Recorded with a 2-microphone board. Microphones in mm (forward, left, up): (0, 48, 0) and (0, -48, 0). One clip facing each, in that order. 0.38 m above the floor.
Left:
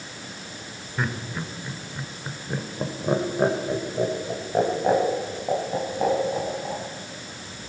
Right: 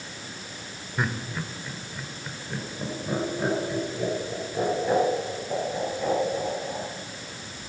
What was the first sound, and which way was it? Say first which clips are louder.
Laughter: even; 5° right (ahead or behind).